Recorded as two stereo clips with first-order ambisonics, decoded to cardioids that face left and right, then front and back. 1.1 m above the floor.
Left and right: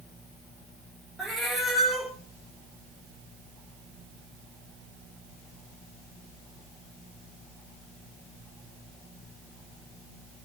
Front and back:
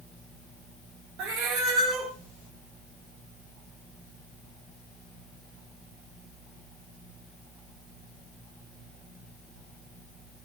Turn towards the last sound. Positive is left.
turn(degrees=-170)